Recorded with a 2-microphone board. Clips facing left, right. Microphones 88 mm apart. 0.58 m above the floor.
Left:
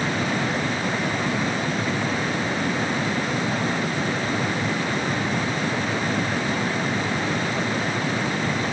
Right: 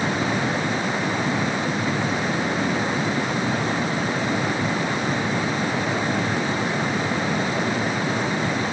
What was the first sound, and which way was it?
Only background noise.